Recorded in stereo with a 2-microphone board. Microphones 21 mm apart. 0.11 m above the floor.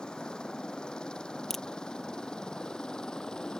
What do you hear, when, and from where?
0.0 s a helicopter: 45° left (ahead or behind); by 3.6 s 40° left (ahead or behind)
1.5 s a crack: 5° left (ahead or behind)